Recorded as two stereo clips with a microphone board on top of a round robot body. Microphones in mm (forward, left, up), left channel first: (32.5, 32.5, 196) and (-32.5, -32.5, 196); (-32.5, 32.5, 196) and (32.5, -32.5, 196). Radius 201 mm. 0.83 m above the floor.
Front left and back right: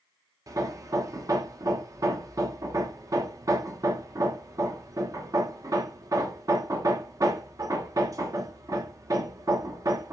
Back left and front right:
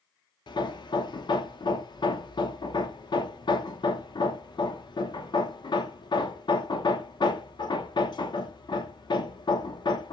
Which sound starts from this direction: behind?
Hammering, at 0.5 s.